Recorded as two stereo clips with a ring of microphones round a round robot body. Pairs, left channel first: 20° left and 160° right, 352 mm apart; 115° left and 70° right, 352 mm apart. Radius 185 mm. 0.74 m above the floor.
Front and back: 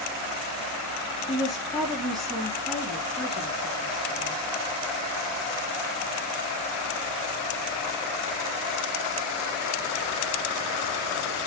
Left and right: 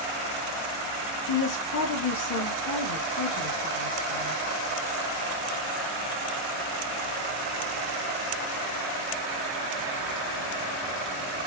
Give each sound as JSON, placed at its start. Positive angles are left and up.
{"t": 1.3, "sound": "a woman speaking", "azimuth_deg": 110, "distance_m": 1.1}